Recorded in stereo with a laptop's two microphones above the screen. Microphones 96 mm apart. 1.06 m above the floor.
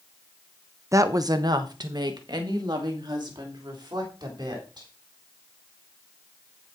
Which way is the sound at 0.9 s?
30° right (ahead or behind).